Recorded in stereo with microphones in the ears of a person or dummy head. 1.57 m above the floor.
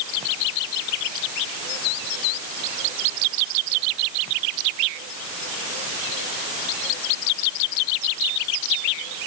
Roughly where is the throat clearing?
No throat clearing in this recording.